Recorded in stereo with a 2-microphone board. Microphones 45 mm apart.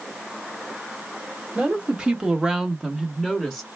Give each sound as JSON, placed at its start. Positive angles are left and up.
{"t": 1.6, "sound": "a woman speaking", "side_deg": -20, "distance_m": 1.3}